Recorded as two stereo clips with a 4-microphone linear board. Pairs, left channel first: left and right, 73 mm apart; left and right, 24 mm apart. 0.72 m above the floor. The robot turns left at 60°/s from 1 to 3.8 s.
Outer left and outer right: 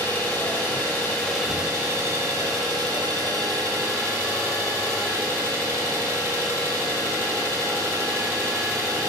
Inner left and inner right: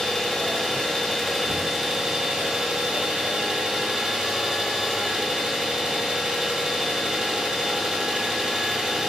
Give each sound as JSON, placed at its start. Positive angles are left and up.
{"t": 0.0, "sound": "an engine running", "azimuth_deg": 30, "distance_m": 0.8}